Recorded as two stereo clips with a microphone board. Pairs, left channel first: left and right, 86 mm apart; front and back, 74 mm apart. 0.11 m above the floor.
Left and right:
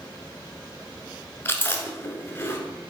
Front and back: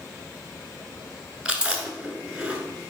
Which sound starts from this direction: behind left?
Chewing, at 1.4 s.